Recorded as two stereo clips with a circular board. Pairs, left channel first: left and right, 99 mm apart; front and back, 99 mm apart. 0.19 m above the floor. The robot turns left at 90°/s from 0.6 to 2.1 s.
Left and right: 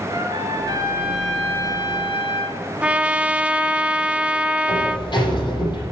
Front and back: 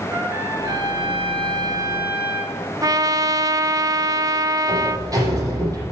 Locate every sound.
0.1 s a trumpet: 120° right, 2.5 m; by 2.6 s 105° left, 2.5 m
2.8 s a trumpet: 160° right, 0.6 m
4.7 s a sliding door: 125° left, 6 m